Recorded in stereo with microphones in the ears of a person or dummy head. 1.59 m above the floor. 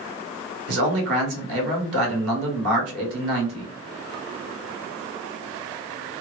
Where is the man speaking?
70° right (ahead or behind), 1.5 m.